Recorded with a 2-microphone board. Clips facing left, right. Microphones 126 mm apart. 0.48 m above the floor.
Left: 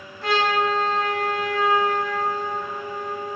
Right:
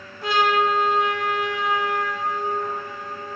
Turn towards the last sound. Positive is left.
turn(degrees=-15)  # may be behind; listen again after turning